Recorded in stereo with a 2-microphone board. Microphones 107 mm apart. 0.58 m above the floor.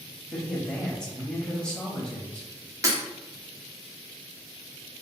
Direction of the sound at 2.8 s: 30° right (ahead or behind).